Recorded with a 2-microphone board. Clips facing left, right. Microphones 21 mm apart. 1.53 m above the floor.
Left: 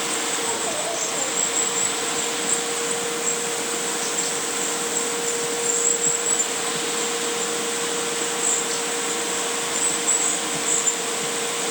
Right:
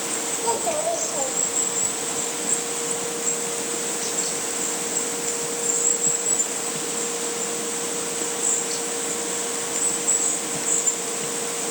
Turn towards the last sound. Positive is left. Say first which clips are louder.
# right 2 dB
turn(degrees=-85)